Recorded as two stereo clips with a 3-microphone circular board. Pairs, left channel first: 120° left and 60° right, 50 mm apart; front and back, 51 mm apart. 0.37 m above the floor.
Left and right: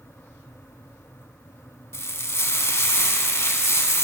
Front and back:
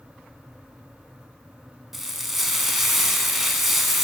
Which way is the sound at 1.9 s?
95° left.